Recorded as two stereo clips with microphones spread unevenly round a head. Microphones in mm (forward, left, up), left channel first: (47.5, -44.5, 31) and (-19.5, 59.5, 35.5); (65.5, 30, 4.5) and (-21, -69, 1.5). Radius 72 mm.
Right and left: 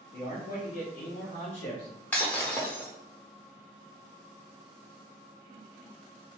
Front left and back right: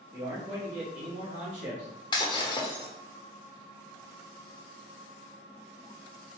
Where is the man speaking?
70° right, 1.7 m; by 1.9 s 105° right, 2 m.